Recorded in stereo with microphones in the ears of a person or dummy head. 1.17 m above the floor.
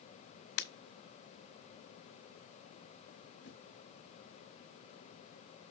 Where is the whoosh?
65° left (ahead or behind), 1.3 m.